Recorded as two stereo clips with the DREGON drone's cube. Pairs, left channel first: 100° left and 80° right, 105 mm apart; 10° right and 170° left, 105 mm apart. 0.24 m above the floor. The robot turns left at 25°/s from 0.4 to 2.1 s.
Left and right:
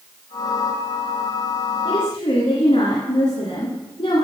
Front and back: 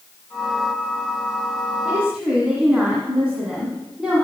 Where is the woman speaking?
95° left, 2.5 m; by 4.2 s 90° left, 2.5 m.